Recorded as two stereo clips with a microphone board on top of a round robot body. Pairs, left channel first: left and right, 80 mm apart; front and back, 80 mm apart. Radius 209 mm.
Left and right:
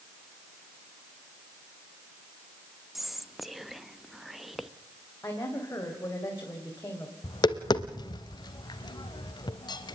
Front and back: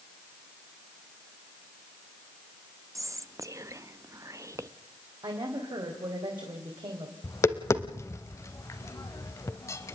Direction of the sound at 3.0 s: 175° right.